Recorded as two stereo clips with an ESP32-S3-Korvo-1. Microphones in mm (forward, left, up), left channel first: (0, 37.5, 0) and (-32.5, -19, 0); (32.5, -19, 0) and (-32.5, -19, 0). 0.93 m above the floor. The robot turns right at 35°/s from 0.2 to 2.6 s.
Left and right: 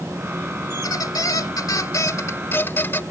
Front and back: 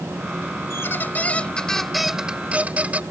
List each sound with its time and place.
0.7 s a squeak: 45° left; by 3.0 s 115° left